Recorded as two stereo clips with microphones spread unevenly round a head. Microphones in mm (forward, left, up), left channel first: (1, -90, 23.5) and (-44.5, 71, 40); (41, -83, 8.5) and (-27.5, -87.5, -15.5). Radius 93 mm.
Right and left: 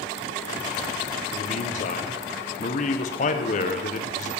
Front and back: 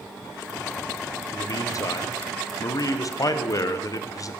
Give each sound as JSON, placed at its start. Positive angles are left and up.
{"t": 1.3, "sound": "a man speaking", "azimuth_deg": -25, "distance_m": 0.7}